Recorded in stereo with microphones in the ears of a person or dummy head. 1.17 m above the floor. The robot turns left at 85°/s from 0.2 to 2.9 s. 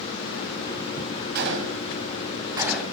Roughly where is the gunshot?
Right.